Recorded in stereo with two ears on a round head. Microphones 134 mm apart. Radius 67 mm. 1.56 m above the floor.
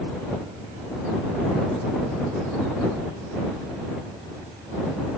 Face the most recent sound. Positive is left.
No sound to turn to.